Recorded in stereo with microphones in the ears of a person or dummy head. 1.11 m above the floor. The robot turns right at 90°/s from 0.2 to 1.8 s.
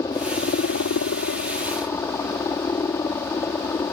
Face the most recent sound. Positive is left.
turn(degrees=165)